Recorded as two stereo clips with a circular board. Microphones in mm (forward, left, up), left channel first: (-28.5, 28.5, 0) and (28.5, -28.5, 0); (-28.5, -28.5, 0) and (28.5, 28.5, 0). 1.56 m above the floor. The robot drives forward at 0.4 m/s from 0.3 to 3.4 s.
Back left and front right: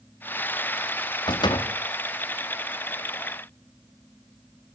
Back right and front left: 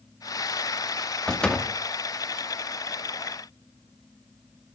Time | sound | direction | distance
1.3 | a door slam | 145° left | 1.9 m